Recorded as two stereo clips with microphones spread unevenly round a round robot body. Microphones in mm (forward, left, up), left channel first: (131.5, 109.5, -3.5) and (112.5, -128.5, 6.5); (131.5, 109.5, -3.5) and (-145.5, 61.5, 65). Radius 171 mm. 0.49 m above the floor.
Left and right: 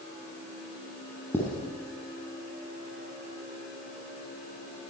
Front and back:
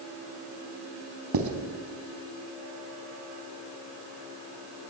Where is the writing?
170° left, 3.5 m.